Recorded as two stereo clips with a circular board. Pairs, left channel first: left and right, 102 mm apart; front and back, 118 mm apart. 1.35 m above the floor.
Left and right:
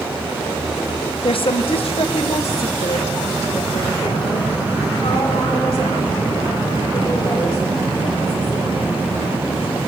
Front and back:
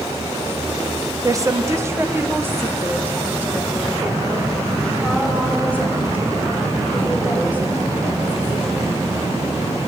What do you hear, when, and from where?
1.2 s a woman speaking: 120° left, 0.8 m; by 9.0 s 105° left, 8 m